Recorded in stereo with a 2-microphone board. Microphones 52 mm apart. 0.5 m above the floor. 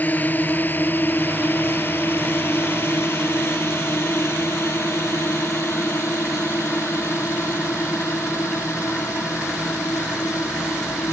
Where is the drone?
35° left (ahead or behind); by 11.1 s 70° left (ahead or behind).